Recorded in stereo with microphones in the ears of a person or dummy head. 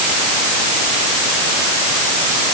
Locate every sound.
Only background noise.